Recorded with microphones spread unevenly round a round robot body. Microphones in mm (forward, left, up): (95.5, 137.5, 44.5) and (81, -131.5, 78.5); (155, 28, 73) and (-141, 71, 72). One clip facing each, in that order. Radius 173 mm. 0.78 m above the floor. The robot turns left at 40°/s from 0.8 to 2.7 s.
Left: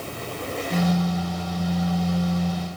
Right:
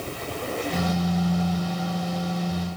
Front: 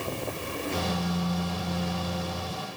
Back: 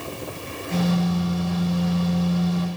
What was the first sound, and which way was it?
Only background noise.